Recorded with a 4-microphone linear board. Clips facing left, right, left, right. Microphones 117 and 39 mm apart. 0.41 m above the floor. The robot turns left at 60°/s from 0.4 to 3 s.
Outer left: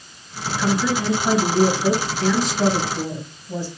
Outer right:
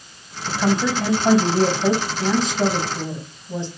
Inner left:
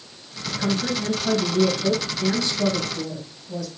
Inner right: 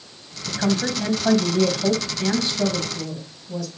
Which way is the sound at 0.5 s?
35° right.